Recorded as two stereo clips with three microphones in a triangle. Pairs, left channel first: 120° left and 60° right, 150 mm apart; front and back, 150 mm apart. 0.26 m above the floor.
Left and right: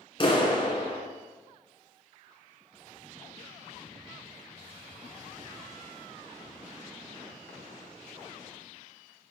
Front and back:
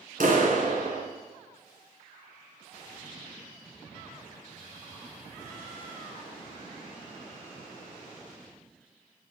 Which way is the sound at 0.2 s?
175° left.